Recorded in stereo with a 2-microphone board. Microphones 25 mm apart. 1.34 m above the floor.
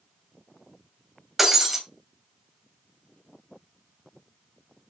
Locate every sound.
1.4 s breaking glass: 10° right (ahead or behind), 3 m